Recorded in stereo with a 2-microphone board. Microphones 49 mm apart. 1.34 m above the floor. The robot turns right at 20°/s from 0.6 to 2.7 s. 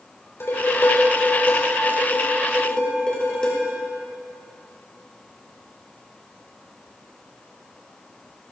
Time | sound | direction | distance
0.4 | dishes clattering | 120° left | 3 m